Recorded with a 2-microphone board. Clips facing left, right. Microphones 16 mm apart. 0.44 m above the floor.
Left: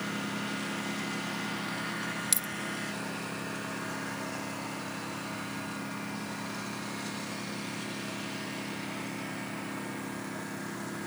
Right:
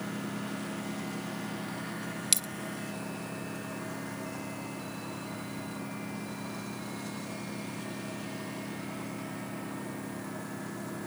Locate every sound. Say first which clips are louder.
0.0 s a lawn mower: left 2 dB; 25° left (ahead or behind); by 11.1 s 20° left (ahead or behind)
2.3 s a dropped coin: right 6 dB; 20° right (ahead or behind)